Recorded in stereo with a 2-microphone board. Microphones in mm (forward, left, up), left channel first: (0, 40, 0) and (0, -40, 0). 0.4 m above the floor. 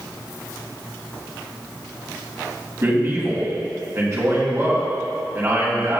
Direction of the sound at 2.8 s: 35° right (ahead or behind).